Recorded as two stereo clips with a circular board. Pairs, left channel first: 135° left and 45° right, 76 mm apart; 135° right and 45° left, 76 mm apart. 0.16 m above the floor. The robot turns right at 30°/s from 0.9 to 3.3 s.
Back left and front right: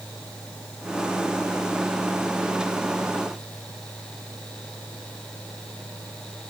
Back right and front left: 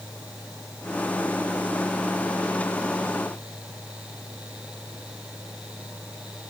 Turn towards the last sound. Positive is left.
No sound to turn to.